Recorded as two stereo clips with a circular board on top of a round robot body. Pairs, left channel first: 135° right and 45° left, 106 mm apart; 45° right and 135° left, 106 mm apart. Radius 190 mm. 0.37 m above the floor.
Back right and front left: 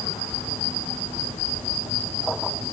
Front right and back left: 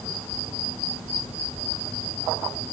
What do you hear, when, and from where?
Only background noise.